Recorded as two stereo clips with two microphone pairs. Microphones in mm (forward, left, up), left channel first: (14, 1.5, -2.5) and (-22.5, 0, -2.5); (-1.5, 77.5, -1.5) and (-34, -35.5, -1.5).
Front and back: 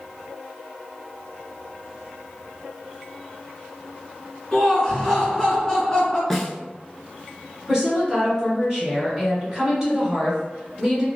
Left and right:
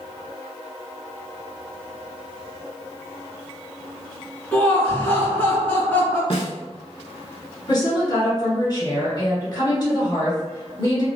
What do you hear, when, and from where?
4.5 s laughter: 25° left, 1.7 m
6.3 s a snare drum: 85° left, 0.5 m
7.7 s a woman speaking: 120° left, 1.9 m